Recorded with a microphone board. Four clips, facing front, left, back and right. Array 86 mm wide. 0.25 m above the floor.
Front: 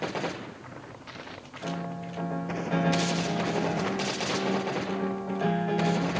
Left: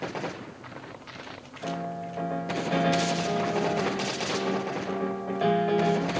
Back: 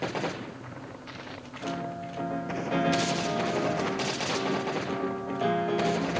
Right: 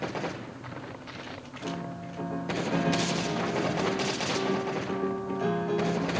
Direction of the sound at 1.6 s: 85° left.